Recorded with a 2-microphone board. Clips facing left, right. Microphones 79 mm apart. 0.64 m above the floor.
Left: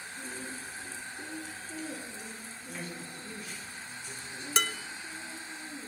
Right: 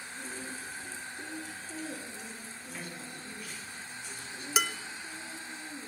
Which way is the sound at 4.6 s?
5° right (ahead or behind).